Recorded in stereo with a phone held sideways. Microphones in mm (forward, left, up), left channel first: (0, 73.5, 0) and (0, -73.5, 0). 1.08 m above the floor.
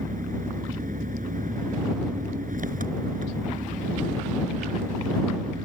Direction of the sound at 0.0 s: 70° right (ahead or behind).